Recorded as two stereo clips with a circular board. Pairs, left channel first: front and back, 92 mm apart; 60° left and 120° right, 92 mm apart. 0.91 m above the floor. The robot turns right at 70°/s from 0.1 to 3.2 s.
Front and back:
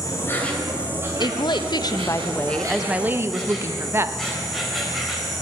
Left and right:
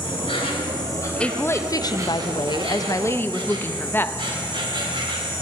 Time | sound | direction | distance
0.0 | an insect | 50° left | 2.5 m
1.2 | a woman speaking | 20° right | 0.6 m